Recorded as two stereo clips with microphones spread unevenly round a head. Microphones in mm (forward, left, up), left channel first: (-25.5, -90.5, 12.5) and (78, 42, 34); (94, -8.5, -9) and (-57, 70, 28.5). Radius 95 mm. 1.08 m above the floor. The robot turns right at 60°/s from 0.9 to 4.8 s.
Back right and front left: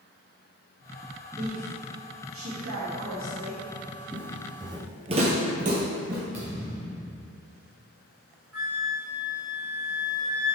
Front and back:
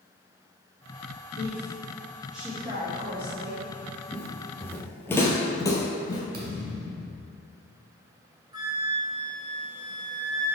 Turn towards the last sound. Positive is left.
turn(degrees=85)